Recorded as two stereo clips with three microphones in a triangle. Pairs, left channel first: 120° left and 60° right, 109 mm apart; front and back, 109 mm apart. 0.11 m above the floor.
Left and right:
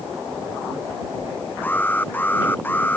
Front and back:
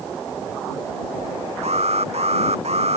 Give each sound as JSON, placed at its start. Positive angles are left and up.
{"t": 1.6, "sound": "an alarm", "azimuth_deg": -165}